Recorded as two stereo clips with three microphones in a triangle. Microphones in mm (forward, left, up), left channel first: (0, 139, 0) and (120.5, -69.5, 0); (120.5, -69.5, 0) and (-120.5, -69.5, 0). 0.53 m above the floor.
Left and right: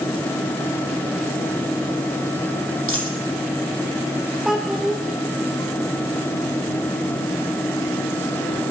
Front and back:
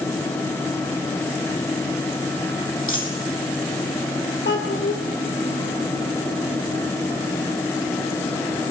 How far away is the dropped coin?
About 3 m.